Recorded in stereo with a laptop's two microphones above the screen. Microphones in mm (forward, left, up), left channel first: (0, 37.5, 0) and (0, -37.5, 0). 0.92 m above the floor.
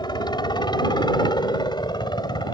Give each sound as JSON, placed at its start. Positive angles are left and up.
{"t": 0.0, "sound": "a helicopter", "side_deg": 75}